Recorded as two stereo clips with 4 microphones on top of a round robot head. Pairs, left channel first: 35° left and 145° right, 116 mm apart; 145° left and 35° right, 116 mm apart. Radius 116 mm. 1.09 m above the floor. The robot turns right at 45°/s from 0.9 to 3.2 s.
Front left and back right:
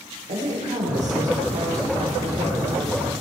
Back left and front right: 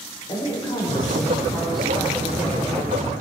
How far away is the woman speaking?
About 4 m.